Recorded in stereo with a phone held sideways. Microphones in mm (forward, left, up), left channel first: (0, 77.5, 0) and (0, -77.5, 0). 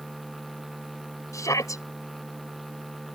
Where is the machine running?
Centre (ahead or behind).